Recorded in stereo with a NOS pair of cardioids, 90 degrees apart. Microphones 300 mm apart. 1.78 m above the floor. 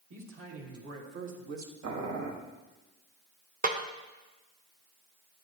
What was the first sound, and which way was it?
A man speaking, 40° right.